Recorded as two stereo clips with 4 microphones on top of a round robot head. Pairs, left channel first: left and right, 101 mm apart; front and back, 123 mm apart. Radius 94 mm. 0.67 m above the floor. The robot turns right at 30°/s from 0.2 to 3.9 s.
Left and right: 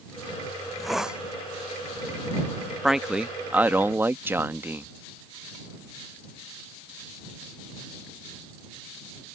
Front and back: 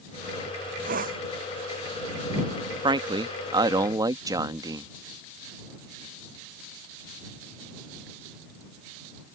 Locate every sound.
0.6 s a hiss: 175° left; by 1.2 s 170° right
2.8 s a man speaking: 175° right; by 4.9 s 145° right